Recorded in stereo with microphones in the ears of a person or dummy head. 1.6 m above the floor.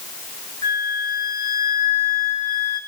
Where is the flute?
15° left (ahead or behind), 1.5 m.